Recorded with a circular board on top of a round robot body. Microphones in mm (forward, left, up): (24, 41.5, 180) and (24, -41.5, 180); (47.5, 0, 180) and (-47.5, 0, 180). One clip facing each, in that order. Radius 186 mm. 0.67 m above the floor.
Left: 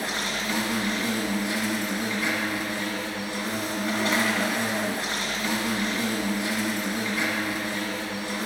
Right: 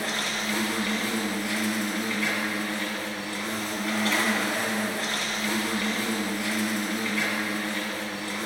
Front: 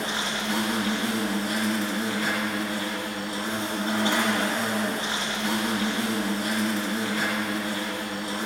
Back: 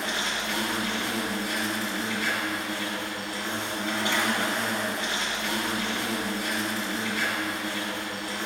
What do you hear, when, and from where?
0.0 s an insect: 30° left, 2.5 m